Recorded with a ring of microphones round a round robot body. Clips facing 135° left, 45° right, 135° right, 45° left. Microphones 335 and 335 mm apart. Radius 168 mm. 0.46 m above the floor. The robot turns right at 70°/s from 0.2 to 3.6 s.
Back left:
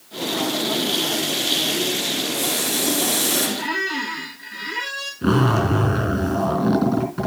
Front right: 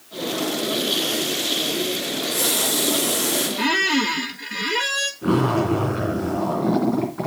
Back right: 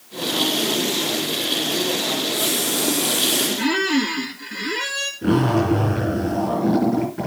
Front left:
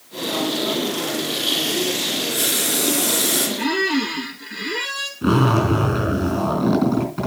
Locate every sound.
2.1 s a running tap: 15° right, 4.5 m; by 3.5 s 80° left, 4.5 m
3.6 s a squeak: 45° right, 1.6 m
5.2 s a zipper: 100° left, 4 m